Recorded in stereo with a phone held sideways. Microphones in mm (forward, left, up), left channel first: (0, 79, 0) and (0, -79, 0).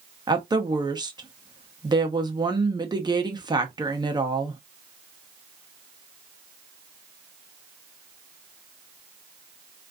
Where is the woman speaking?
25° right (ahead or behind), 0.8 m.